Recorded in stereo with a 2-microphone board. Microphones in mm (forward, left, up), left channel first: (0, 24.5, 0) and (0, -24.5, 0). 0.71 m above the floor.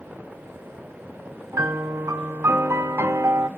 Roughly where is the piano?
Right.